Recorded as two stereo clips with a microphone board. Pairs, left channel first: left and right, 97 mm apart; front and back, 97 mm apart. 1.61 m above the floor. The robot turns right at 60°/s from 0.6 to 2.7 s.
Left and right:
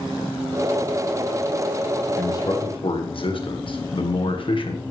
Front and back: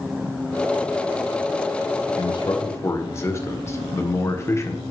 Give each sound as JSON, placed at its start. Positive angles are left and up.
{"t": 2.2, "sound": "a man speaking", "azimuth_deg": 30, "distance_m": 1.7}